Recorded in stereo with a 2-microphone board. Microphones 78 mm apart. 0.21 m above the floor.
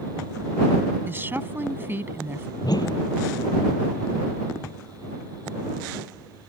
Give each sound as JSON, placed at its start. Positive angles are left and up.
{"t": 1.1, "sound": "a woman speaking", "side_deg": -30}
{"t": 2.6, "sound": "a whoosh", "side_deg": 60}